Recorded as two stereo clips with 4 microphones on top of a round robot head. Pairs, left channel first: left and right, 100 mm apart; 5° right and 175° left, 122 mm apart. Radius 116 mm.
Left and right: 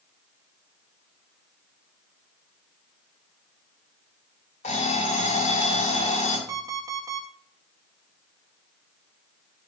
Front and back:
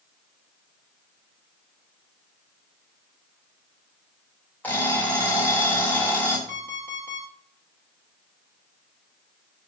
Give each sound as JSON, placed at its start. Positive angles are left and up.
{"t": 4.6, "sound": "an alarm clock", "azimuth_deg": 70, "distance_m": 3.0}
{"t": 6.5, "sound": "an alarm clock", "azimuth_deg": -145, "distance_m": 2.5}